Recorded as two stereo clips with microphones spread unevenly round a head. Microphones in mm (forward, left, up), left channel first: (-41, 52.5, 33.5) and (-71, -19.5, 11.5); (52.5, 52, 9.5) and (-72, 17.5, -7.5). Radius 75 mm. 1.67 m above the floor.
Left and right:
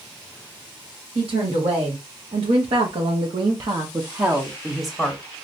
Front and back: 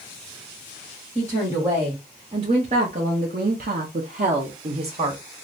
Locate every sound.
1.1 s a woman speaking: 90° right, 1.5 m; by 5.2 s 145° left, 1.0 m